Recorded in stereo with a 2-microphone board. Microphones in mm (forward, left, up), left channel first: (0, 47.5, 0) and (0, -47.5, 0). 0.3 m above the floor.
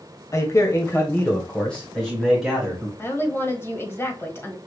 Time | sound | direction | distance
0.3 | a man speaking | 35° left (ahead or behind) | 1.2 m
3.0 | a woman speaking | 25° left (ahead or behind) | 1.4 m